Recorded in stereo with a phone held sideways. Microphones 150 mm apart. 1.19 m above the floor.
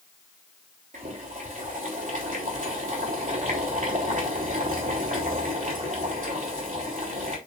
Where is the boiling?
60° right (ahead or behind), 3 m.